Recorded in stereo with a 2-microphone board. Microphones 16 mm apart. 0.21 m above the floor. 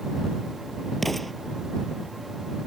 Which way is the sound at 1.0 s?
5° left (ahead or behind).